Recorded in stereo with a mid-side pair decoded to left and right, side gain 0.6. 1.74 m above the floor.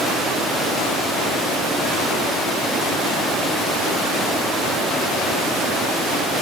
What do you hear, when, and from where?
Only background noise.